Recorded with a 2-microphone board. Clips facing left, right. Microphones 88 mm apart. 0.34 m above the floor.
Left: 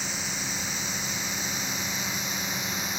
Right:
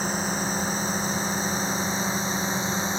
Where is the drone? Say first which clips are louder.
Right 8 dB; 40° right (ahead or behind); by 3.0 s 30° right (ahead or behind).